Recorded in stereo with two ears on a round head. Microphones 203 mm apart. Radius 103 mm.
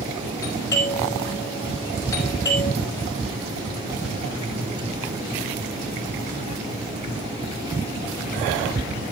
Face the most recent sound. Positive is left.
turn(degrees=15)  # may be behind; listen again after turning